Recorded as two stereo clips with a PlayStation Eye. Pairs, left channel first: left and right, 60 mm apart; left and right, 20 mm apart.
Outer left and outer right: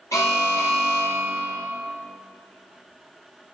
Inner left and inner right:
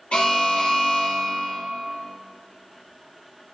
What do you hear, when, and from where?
0.1 s an alarm: 65° left (ahead or behind), 5 m